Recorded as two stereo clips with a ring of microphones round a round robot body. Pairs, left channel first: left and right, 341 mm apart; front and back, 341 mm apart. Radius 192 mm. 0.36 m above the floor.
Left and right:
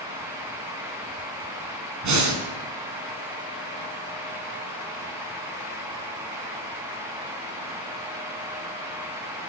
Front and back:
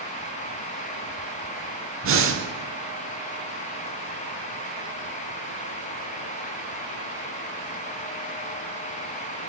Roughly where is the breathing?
Behind right.